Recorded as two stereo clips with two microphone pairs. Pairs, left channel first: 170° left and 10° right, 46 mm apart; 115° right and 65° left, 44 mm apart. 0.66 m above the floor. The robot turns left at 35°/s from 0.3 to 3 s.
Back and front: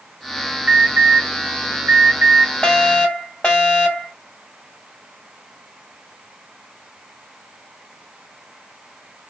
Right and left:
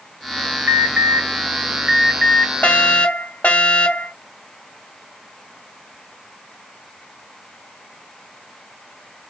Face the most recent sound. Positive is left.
turn(degrees=-135)